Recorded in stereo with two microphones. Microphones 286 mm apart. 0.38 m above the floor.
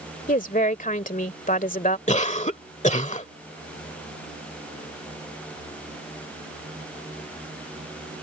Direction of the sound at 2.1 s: 25° left (ahead or behind).